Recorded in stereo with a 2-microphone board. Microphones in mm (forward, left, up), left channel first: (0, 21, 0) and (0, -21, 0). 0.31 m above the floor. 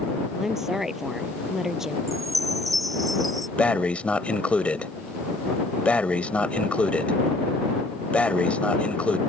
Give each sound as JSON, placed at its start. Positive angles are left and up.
{"t": 0.4, "sound": "a woman speaking", "side_deg": -10}
{"t": 2.1, "sound": "a chime", "side_deg": 0}
{"t": 3.6, "sound": "breathing", "side_deg": 35}